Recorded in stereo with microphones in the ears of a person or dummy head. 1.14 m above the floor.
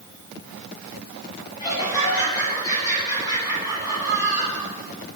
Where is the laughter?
20° left (ahead or behind), 9 m.